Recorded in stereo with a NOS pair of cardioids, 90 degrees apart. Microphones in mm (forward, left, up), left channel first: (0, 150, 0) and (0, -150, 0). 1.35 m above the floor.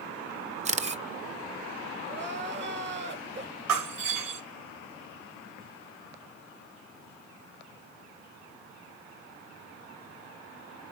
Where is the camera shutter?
25° right, 0.6 m.